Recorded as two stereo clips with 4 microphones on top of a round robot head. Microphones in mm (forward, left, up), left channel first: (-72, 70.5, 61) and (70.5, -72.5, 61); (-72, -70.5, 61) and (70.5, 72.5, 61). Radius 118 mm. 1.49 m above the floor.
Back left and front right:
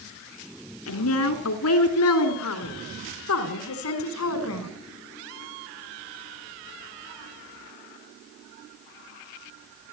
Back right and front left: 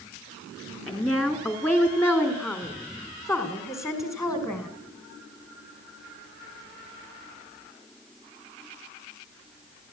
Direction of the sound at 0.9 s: 140° left.